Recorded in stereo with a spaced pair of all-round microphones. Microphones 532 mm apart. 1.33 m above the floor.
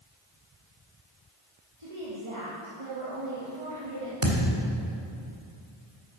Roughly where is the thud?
Right.